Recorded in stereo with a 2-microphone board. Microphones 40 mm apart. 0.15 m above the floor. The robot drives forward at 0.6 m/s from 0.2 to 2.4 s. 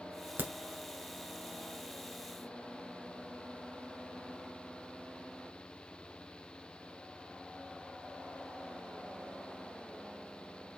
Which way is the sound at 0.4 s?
50° right (ahead or behind).